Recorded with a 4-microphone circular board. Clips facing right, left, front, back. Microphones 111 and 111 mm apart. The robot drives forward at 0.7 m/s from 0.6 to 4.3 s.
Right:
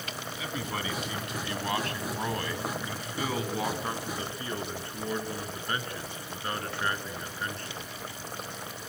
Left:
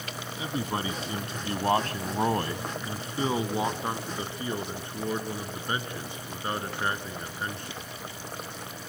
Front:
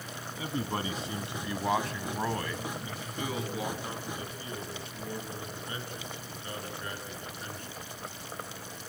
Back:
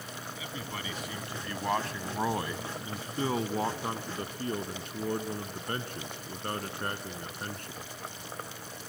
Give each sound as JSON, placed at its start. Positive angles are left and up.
{"t": 0.4, "sound": "a man speaking", "azimuth_deg": 35, "distance_m": 1.4}